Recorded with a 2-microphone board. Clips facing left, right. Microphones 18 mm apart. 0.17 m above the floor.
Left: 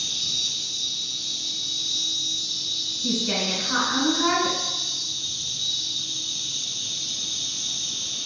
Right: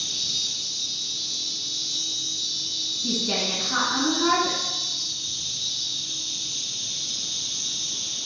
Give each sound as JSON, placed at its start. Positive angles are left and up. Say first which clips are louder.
{"t": 0.0, "sound": "an insect", "louder": "left 1 dB", "side_deg": -20, "distance_m": 1.9}
{"t": 3.0, "sound": "a woman speaking", "louder": "left 1 dB", "side_deg": 30, "distance_m": 1.5}